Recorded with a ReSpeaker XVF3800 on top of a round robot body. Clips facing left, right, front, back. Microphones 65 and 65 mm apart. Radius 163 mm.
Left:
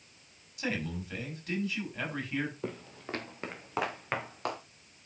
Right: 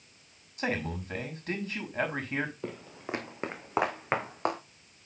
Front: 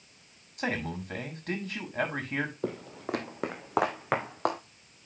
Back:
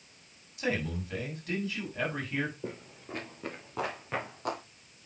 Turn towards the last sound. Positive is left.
turn(degrees=-30)